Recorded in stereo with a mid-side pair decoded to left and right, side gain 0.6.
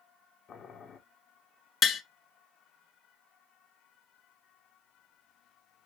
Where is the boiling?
45° left, 1.2 m.